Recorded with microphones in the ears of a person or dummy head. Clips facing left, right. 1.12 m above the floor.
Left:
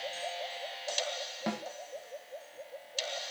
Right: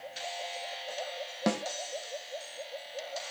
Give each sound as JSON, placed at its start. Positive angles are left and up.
{"t": 1.5, "sound": "a snare drum", "side_deg": -50, "distance_m": 0.5}